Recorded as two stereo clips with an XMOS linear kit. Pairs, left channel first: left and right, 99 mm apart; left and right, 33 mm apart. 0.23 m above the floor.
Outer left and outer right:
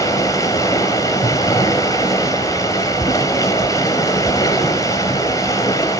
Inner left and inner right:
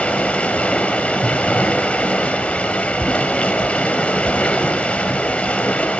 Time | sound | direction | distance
0.0 | running water | 35° left (ahead or behind) | 4 m